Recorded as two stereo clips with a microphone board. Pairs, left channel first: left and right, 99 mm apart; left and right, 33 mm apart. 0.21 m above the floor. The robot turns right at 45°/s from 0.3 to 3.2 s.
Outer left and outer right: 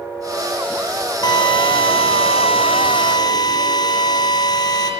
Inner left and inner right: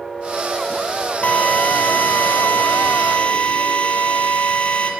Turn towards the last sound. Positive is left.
turn(degrees=130)